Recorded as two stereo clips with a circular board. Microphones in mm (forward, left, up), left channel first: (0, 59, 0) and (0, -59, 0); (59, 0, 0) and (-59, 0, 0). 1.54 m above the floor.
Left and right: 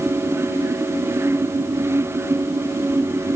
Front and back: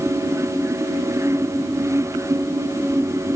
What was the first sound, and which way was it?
Only background noise.